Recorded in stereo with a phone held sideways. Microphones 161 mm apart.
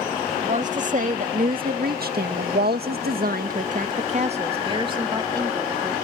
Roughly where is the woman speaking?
Right.